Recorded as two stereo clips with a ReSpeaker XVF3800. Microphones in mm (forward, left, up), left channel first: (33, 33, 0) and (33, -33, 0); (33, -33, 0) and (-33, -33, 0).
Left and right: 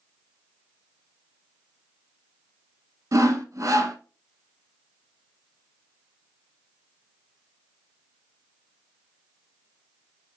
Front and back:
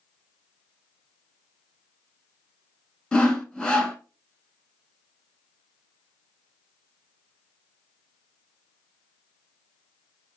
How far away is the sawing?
About 0.8 m.